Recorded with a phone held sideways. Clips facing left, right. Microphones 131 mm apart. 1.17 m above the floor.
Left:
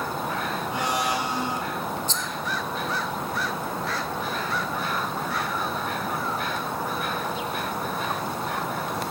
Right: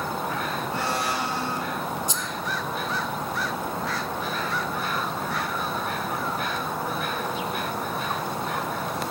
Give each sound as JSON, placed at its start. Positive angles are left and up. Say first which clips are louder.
{"t": 0.7, "sound": "a blender", "louder": "left 2 dB", "side_deg": 15, "distance_m": 2.5}
{"t": 2.1, "sound": "a rattle", "louder": "even", "side_deg": -10, "distance_m": 0.9}